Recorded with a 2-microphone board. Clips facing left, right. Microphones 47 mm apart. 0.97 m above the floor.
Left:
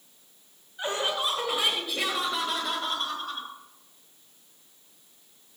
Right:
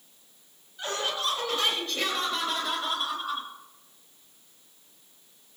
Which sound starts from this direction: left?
Laughter, at 0.8 s.